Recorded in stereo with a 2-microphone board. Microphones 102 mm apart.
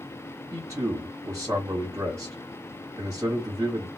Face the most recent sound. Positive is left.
turn(degrees=-25)  # may be behind; listen again after turning